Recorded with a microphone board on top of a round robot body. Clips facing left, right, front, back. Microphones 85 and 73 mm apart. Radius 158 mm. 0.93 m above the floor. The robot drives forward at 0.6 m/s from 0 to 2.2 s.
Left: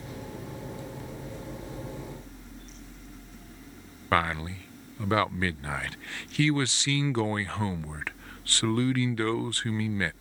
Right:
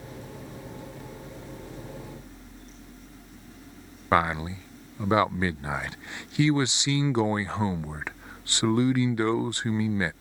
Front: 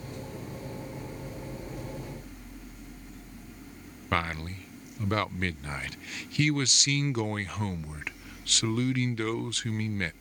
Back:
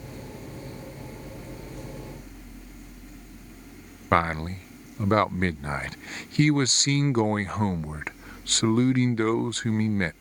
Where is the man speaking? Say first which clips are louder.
Right 3 dB, back 7 dB; 150° right.